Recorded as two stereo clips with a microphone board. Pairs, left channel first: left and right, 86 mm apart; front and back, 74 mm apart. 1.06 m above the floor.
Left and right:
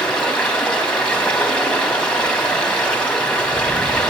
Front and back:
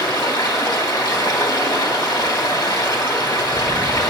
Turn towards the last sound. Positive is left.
turn(degrees=15)